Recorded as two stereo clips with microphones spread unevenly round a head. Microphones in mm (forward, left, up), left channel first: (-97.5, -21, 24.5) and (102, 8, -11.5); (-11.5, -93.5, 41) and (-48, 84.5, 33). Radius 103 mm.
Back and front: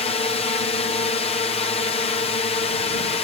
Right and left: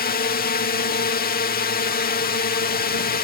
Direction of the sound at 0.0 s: 105° right.